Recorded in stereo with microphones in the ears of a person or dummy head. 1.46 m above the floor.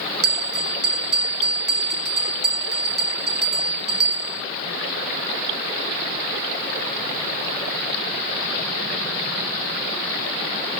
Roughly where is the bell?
Right.